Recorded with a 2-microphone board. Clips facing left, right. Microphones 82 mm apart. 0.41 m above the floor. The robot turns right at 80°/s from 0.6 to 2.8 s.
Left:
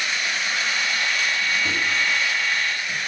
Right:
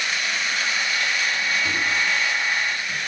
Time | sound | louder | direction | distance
1.6 | a microwave | even | 15° left (ahead or behind) | 1.1 m